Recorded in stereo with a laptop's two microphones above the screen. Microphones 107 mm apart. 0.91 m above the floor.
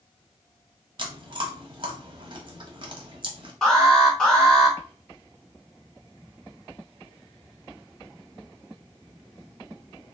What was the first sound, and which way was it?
Chewing, 45° right (ahead or behind).